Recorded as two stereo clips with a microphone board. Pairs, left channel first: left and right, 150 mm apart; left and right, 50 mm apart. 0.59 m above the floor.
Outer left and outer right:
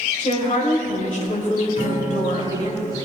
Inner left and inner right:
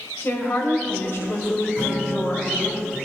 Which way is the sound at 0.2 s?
55° left (ahead or behind).